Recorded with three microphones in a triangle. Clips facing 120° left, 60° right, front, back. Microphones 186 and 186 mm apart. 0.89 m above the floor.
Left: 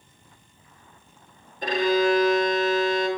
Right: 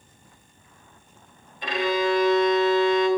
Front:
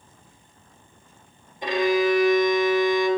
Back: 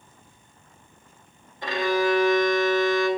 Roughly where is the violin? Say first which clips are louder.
Left 3 dB, front 3 dB; left.